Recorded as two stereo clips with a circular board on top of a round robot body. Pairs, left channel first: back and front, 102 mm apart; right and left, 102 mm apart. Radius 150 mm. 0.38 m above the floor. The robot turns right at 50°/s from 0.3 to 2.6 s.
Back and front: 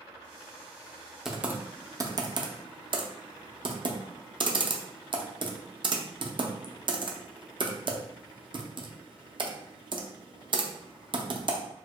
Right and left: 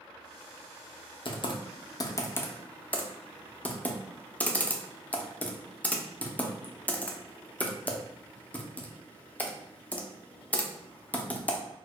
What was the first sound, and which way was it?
Typing on a keyboard, 85° right.